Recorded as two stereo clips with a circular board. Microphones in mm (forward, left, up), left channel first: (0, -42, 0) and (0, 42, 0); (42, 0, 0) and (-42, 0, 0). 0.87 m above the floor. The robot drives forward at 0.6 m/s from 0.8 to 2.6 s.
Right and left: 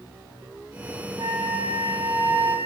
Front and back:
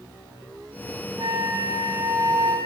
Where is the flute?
135° left, 7.5 m; by 2.7 s 140° left, 8 m.